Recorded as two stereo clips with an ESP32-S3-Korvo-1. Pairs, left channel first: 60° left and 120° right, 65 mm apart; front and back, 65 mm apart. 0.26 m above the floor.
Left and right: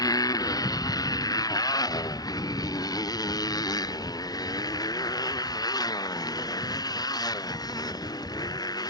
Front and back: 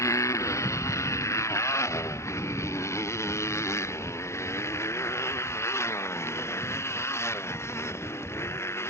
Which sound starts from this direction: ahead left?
A motorcycle, at 0.0 s.